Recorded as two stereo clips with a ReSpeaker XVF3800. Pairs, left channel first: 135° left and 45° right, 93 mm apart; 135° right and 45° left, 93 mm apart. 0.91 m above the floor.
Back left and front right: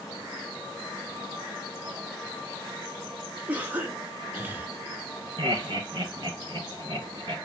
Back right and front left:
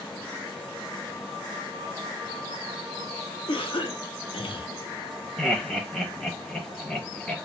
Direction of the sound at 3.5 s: 115° right.